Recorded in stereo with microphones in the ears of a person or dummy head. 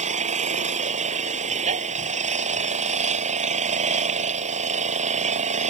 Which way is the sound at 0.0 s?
40° right (ahead or behind).